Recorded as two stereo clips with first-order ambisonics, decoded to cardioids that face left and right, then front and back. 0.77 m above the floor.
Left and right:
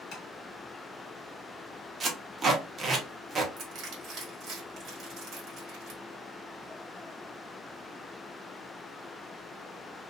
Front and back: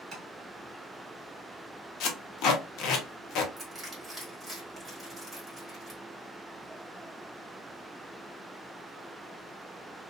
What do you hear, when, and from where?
0.1 s tapping: 130° left, 1.1 m
2.0 s tape being pulled: 25° right, 0.7 m
3.6 s crushing: 110° right, 1.5 m